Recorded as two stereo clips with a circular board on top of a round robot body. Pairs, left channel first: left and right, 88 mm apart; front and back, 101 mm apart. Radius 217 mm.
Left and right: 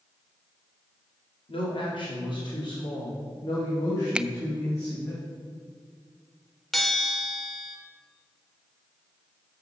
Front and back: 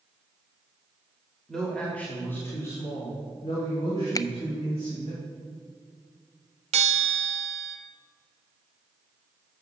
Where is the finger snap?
20° right, 0.6 m.